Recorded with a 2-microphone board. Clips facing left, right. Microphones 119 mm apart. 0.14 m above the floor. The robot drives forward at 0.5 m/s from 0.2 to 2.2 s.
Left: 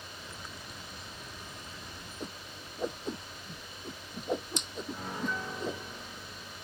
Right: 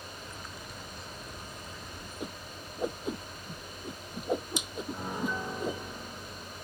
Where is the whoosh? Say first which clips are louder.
Right 2 dB; 5° right (ahead or behind).